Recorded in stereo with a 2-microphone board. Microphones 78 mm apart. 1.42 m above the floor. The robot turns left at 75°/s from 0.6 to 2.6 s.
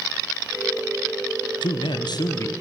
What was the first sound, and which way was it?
A man speaking, 105° left.